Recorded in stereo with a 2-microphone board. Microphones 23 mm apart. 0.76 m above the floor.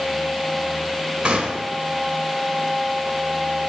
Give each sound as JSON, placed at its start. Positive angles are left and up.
{"t": 1.2, "sound": "a gunshot", "side_deg": -50, "distance_m": 3.5}